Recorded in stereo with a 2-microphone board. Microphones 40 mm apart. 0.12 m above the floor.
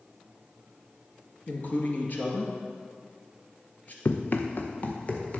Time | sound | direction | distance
1.5 | a man speaking | 45° left (ahead or behind) | 1.6 m
4.0 | running footsteps | 70° left (ahead or behind) | 0.8 m